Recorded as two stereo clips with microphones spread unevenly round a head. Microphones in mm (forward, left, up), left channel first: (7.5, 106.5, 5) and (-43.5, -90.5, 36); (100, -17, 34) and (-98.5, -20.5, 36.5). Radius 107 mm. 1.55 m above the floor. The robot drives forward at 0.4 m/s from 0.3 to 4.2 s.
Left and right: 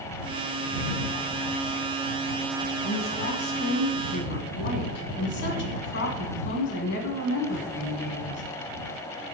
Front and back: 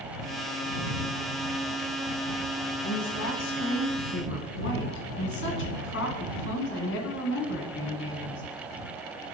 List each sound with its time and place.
2.8 s a woman speaking: 25° left, 1.9 m; by 8.4 s 35° left, 1.4 m